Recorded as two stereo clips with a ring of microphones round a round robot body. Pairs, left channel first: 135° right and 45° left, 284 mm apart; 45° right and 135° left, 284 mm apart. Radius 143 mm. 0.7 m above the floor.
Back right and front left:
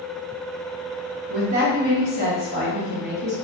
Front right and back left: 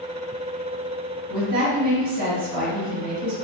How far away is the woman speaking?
About 1.2 m.